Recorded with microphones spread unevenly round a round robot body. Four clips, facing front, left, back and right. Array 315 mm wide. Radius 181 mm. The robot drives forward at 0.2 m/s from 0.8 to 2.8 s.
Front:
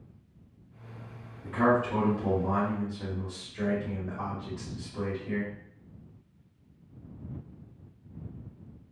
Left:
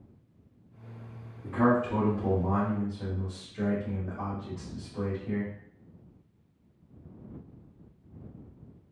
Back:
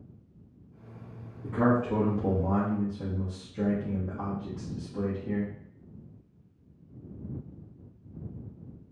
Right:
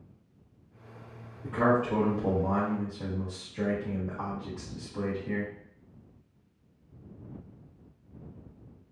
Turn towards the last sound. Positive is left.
turn(degrees=-175)